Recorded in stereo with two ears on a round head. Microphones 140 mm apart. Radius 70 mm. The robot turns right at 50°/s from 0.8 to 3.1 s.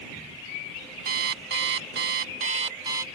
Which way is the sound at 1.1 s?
120° right.